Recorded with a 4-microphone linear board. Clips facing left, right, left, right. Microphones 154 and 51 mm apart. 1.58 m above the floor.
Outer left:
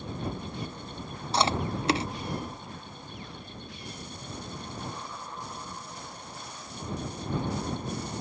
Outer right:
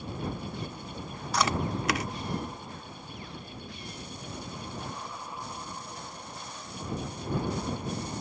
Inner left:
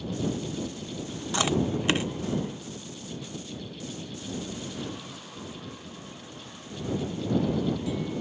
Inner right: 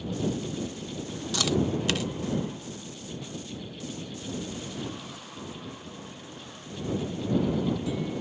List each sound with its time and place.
1.3 s chewing: 30° left (ahead or behind)